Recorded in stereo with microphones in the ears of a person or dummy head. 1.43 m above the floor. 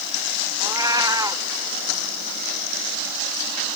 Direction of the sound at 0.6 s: 15° right (ahead or behind).